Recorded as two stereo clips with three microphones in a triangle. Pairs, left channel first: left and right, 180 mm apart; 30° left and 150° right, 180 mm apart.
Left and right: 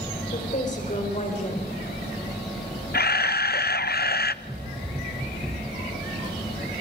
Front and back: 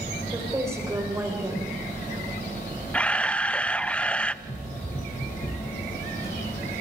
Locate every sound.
0.3 s a woman speaking: 135° left, 4 m
2.9 s a camera shutter: 110° left, 0.7 m
4.4 s running footsteps: 10° right, 4.5 m; by 6.7 s 30° right, 5.5 m